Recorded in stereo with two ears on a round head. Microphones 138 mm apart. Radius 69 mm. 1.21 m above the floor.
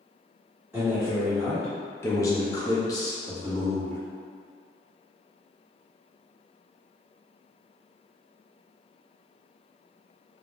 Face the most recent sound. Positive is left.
turn(degrees=25)  # may be behind; listen again after turning